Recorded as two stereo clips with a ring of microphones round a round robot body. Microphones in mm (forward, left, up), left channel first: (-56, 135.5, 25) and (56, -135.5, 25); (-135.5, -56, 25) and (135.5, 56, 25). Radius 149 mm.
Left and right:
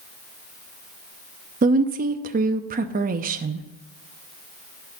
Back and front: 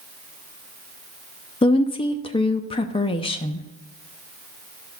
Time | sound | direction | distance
1.6 | a woman speaking | 100° right | 0.6 m